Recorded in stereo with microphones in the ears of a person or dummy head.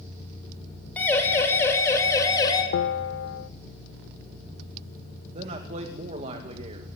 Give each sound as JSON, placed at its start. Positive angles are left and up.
{"t": 1.0, "sound": "a siren", "side_deg": 10, "distance_m": 5.0}
{"t": 2.7, "sound": "a bell", "side_deg": 70, "distance_m": 0.5}
{"t": 5.3, "sound": "a man speaking", "side_deg": -40, "distance_m": 2.5}